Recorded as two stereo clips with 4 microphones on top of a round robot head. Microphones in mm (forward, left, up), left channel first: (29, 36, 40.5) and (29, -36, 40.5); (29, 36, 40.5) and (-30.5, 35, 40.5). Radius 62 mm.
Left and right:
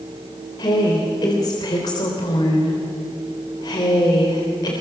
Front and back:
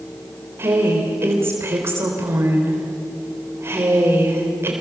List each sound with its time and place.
0.6 s a woman speaking: 130° left, 4 m